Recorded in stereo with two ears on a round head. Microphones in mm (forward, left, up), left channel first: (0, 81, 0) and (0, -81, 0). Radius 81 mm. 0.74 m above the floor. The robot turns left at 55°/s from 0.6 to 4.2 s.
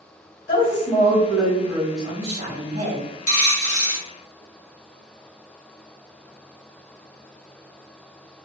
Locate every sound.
0.5 s a woman speaking: 45° left, 1.3 m; by 3.0 s 90° right, 1.3 m
3.3 s a dropped coin: 130° left, 1.3 m; by 4.0 s 85° left, 1.3 m